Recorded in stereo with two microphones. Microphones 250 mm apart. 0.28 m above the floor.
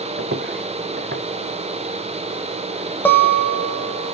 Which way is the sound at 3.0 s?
10° left (ahead or behind).